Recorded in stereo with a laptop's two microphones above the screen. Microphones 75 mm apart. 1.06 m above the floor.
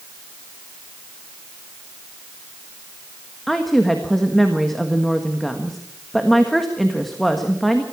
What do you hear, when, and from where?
3.5 s a woman speaking: 5° left (ahead or behind), 1.4 m